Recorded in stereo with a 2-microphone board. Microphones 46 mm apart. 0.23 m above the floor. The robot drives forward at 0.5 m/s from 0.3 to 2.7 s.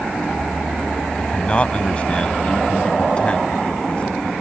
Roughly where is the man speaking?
Left.